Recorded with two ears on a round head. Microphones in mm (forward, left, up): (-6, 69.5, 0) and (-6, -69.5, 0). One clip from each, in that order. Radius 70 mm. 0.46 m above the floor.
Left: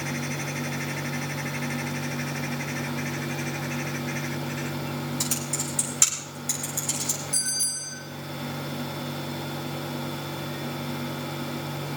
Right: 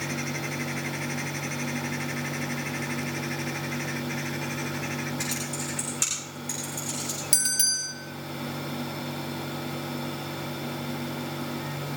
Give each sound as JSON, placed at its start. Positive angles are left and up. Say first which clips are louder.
{"t": 5.2, "sound": "typing on a keyboard", "louder": "left 1 dB", "side_deg": 25, "distance_m": 8.5}
{"t": 7.3, "sound": "a bell", "louder": "right 7 dB", "side_deg": -60, "distance_m": 5.0}